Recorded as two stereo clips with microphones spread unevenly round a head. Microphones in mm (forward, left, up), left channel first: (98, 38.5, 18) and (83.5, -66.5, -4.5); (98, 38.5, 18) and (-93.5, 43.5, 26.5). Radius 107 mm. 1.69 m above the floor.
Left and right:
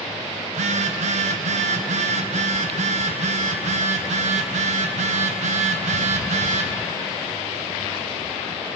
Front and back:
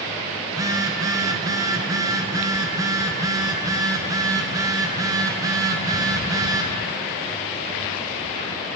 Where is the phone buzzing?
110° right, 0.5 m.